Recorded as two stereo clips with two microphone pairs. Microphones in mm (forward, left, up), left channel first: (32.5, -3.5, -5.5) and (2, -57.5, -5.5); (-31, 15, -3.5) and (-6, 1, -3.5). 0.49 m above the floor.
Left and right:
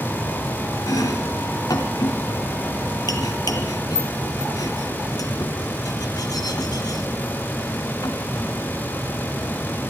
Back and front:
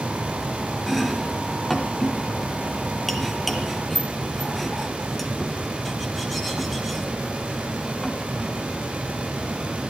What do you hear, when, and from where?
0.9 s chopping: 65° left, 1.3 m